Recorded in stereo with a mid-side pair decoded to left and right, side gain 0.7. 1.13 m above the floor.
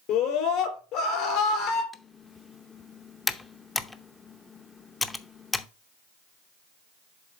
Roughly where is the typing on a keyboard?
Ahead.